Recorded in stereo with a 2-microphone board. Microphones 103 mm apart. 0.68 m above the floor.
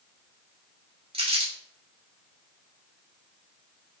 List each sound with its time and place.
1.1 s crumpling: 75° right (ahead or behind), 3.5 m